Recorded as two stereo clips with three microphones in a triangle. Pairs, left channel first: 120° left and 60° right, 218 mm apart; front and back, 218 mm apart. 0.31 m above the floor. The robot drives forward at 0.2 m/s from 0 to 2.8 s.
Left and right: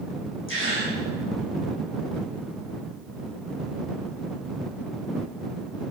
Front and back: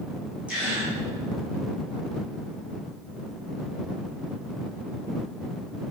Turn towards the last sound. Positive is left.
turn(degrees=100)